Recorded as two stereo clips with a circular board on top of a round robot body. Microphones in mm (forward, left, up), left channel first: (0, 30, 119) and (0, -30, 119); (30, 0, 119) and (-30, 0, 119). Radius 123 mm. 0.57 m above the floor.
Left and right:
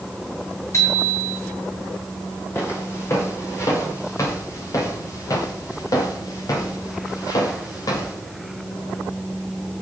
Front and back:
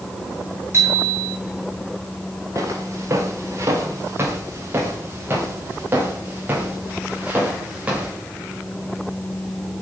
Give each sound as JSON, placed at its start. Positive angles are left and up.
{"t": 0.7, "sound": "a bicycle bell", "azimuth_deg": 135, "distance_m": 9.0}
{"t": 2.5, "sound": "footsteps", "azimuth_deg": 140, "distance_m": 5.0}